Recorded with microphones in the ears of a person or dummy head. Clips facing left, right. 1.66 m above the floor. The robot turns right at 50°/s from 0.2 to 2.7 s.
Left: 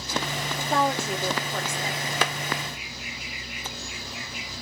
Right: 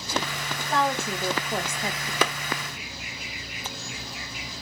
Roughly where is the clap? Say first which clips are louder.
Right 3 dB; right.